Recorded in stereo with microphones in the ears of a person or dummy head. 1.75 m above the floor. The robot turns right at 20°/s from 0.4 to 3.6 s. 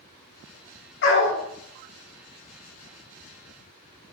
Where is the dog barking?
65° left (ahead or behind), 3 m; by 1.4 s 60° left (ahead or behind), 3 m.